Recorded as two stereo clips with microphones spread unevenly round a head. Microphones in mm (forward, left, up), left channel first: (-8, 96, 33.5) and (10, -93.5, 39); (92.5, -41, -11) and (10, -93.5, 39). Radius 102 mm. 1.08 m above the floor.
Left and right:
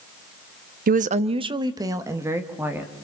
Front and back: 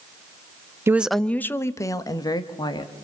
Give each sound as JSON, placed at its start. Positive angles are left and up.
{"t": 0.9, "sound": "a woman speaking", "azimuth_deg": -60, "distance_m": 0.7}